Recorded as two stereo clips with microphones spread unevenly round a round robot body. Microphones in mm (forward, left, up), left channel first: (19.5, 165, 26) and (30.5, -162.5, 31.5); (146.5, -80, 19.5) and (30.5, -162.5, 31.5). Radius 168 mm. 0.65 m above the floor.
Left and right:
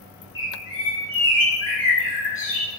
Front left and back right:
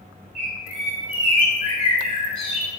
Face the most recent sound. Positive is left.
turn(degrees=40)